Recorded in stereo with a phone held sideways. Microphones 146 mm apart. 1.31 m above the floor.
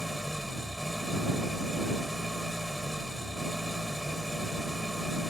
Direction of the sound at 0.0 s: Centre (ahead or behind).